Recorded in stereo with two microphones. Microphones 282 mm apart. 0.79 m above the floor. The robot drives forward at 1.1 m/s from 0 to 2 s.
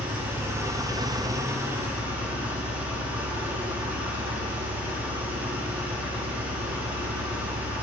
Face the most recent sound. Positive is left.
turn(degrees=-5)  # may be behind; listen again after turning